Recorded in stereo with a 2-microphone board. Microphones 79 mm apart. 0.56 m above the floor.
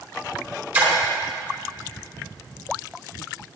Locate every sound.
0.7 s a splash: 20° right (ahead or behind), 4 m